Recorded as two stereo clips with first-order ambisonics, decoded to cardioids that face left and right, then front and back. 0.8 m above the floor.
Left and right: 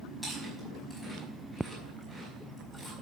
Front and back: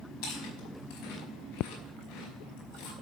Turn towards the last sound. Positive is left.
turn(degrees=-5)